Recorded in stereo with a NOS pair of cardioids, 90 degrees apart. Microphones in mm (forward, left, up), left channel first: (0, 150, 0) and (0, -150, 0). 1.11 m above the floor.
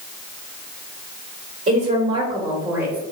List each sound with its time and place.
1.7 s a woman speaking: 30° right, 1.4 m; by 3.0 s straight ahead, 1.5 m